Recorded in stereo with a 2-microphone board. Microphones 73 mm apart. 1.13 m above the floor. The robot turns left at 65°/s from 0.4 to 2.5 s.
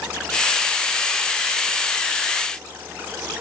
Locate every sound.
Only background noise.